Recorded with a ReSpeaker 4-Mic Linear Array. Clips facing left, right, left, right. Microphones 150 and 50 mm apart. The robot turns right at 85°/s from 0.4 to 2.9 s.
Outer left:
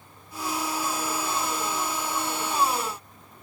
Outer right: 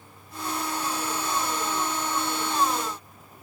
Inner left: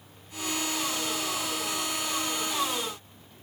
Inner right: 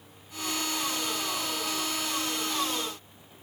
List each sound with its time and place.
Only background noise.